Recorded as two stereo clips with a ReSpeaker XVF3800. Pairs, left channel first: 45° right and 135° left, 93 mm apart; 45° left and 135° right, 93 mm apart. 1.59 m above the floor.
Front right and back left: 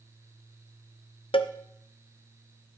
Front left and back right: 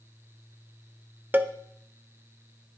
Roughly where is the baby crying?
I don't hear a baby crying.